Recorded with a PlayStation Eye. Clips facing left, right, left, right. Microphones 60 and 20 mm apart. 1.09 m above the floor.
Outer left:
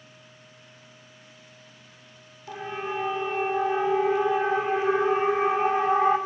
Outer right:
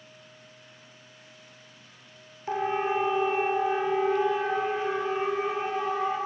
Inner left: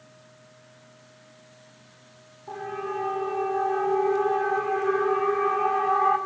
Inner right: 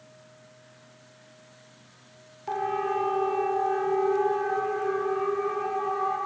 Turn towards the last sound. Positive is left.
turn(degrees=35)  # may be behind; listen again after turning